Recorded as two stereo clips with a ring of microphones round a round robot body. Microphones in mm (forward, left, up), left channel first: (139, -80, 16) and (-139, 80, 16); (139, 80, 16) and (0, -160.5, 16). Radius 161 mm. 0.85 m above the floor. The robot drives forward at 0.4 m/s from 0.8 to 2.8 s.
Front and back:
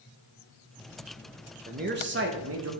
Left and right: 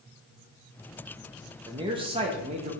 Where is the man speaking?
Straight behind, 0.8 m.